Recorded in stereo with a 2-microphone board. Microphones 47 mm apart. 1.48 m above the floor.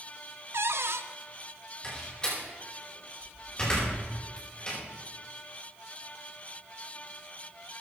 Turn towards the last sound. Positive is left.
turn(degrees=20)  # may be behind; listen again after turning